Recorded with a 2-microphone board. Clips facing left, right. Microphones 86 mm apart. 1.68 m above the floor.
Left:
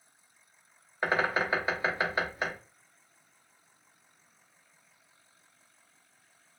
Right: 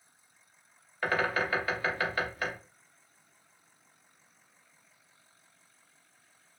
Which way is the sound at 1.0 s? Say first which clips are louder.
Left 1 dB; 20° left (ahead or behind).